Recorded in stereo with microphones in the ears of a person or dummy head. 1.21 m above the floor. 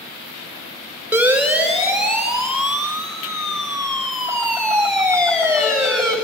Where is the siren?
5° right (ahead or behind), 5.5 m; by 6.2 s 5° left (ahead or behind), 8.5 m.